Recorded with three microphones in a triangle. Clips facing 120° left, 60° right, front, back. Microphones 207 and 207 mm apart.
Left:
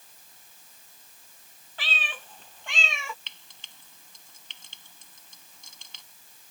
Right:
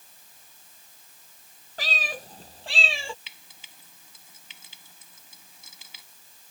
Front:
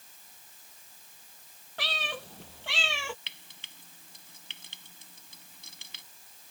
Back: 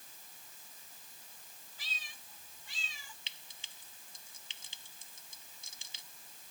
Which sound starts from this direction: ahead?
A cat meowing, at 1.8 s.